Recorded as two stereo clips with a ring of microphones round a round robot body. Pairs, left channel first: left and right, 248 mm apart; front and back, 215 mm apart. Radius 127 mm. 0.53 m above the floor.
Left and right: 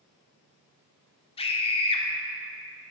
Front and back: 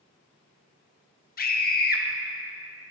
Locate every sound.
1.4 s a scream: 30° left, 1.1 m